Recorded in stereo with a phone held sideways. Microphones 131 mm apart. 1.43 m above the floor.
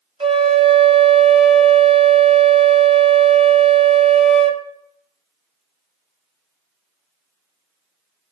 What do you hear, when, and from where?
0.2 s a flute: 45° right (ahead or behind), 0.8 m